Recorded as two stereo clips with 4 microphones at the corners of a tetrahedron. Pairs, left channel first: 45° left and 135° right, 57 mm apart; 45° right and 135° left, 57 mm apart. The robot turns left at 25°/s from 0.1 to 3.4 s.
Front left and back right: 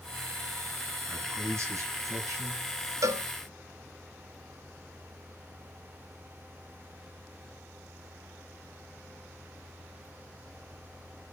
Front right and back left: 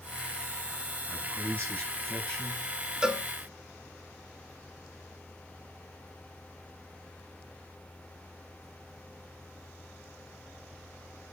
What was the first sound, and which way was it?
A man speaking, 90° right.